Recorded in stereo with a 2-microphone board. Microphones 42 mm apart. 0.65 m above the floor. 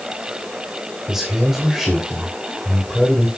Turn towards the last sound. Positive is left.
turn(degrees=-5)  # may be behind; listen again after turning